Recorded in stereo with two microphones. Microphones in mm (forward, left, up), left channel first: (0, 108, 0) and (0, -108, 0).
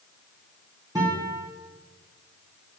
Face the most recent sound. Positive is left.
turn(degrees=-15)  # may be behind; listen again after turning